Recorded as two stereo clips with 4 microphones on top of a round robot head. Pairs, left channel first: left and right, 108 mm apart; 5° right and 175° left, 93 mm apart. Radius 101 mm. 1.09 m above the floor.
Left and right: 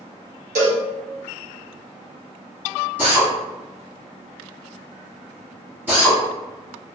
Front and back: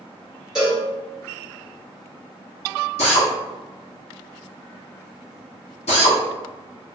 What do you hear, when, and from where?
0.6 s a cowbell: 100° right, 1.3 m
3.0 s a drill: 10° right, 0.9 m